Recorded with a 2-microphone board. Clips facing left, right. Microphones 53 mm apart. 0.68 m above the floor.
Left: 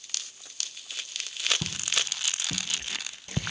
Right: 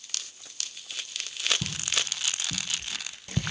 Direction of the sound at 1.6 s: 30° left (ahead or behind).